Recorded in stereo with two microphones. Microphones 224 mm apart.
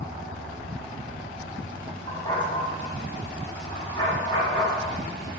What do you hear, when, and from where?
2.1 s a dog barking: 20° left (ahead or behind), 4.5 m; by 4.9 s 25° left (ahead or behind), 7 m